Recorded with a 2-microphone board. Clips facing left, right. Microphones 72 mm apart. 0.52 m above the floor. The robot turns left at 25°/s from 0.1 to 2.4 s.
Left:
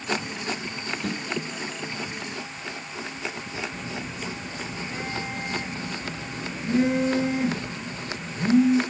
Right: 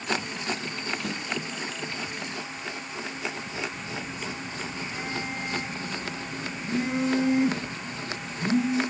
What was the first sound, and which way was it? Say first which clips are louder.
A snare drum: left 3 dB; 85° left.